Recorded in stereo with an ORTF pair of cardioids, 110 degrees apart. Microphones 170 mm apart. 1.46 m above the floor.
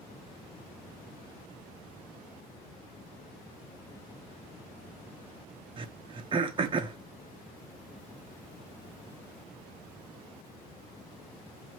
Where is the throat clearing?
30° right, 1.0 m.